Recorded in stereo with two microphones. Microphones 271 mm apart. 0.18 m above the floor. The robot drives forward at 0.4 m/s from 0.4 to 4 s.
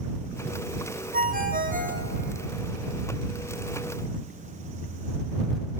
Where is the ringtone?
30° right (ahead or behind), 3 m.